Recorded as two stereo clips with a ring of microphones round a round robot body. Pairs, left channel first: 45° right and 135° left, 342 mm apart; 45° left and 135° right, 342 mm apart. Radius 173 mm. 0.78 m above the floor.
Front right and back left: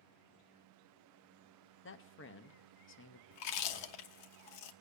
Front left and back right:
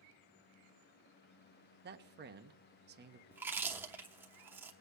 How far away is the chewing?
About 1.0 m.